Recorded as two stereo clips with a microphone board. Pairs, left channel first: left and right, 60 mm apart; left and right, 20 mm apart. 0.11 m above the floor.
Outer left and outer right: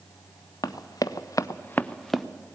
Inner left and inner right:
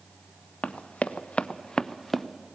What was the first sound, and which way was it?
Running footsteps, 75° left (ahead or behind).